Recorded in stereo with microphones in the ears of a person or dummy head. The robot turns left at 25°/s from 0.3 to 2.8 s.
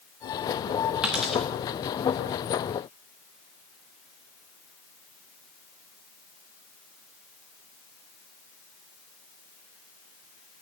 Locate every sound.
1.0 s a dropped coin: 10° right (ahead or behind), 1.0 m; by 1.4 s 5° right (ahead or behind), 1.0 m